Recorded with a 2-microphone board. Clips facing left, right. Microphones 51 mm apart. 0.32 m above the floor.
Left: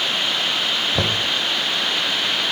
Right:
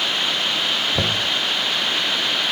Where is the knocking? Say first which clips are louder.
Even; 5° left (ahead or behind), 0.6 m.